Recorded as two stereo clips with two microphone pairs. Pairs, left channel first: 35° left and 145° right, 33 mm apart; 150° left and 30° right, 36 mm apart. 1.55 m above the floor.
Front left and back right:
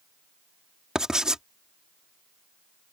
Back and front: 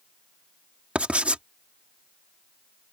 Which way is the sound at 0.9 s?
75° right.